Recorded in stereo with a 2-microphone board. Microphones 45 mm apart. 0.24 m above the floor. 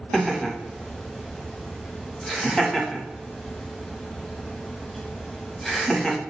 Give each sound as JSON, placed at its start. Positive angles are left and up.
{"t": 0.1, "sound": "laughter", "side_deg": 5, "distance_m": 1.3}